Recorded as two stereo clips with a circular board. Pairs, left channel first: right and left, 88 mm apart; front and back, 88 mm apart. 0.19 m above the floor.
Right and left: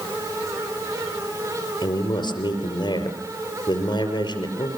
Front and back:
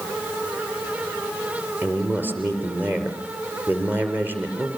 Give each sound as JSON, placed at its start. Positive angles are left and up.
{"t": 1.8, "sound": "a man speaking", "azimuth_deg": -115, "distance_m": 5.0}